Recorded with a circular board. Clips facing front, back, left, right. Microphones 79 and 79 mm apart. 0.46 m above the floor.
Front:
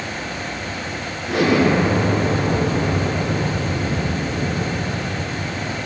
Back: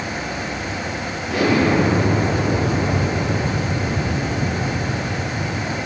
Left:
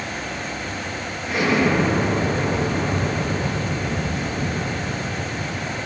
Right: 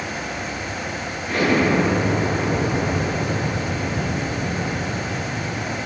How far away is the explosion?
About 8.5 m.